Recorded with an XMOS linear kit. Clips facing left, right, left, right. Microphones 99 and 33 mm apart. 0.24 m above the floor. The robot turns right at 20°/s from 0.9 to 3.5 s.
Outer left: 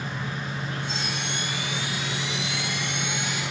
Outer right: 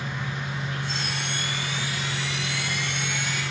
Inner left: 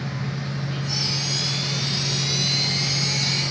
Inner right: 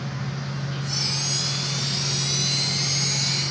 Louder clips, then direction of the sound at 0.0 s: Even, inner left 2 dB; 40° left.